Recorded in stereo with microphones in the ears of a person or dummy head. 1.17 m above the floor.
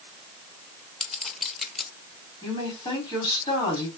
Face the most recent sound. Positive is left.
turn(degrees=20)  # may be behind; listen again after turning